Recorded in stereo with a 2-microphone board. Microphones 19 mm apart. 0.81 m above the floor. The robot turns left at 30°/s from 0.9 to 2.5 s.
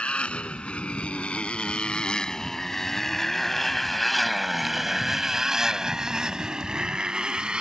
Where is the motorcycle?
85° left; by 7.6 s 55° right (ahead or behind).